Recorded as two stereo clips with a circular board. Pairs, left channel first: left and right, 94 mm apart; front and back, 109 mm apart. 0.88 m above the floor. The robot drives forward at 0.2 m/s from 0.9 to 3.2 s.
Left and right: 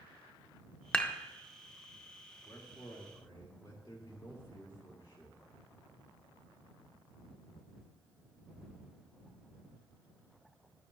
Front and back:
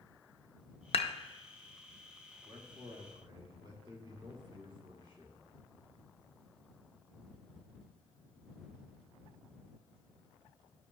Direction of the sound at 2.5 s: 130° left.